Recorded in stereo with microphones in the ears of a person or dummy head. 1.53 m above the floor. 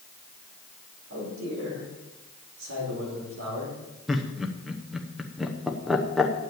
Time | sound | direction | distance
1.1 | a man speaking | 80° right | 5.5 m
4.1 | laughter | centre (ahead or behind) | 0.9 m